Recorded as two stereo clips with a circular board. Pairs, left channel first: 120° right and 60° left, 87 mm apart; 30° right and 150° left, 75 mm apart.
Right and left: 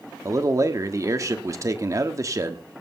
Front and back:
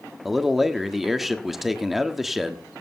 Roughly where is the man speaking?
Ahead left.